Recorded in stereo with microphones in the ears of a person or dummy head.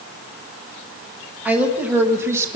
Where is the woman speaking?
5° right (ahead or behind), 2 m; by 2.6 s 15° right (ahead or behind), 1.4 m.